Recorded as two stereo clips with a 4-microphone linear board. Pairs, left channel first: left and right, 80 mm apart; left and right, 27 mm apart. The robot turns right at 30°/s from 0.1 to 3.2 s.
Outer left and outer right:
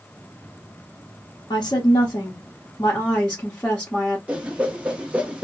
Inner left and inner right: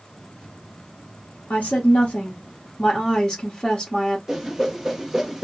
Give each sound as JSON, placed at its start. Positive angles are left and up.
{"t": 1.5, "sound": "a woman speaking", "azimuth_deg": 110, "distance_m": 0.9}
{"t": 4.3, "sound": "a whoosh", "side_deg": -15, "distance_m": 0.7}